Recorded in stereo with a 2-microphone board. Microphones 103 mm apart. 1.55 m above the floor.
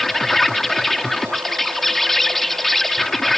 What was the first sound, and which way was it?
An insect, 5° left (ahead or behind).